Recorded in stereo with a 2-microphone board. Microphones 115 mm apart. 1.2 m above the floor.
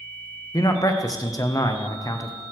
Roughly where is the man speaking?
Left.